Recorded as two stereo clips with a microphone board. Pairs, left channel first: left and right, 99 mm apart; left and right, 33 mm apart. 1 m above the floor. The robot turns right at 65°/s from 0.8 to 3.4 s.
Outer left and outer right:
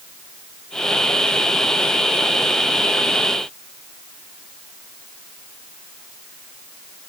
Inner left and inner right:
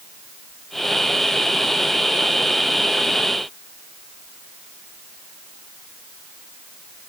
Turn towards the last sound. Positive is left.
No sound to turn to.